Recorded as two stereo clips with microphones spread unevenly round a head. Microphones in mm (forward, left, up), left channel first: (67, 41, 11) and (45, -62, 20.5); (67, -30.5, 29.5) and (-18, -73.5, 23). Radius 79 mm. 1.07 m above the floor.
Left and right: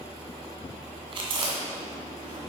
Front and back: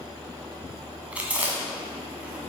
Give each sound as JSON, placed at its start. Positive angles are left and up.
{"t": 1.1, "sound": "chewing", "azimuth_deg": -75, "distance_m": 1.8}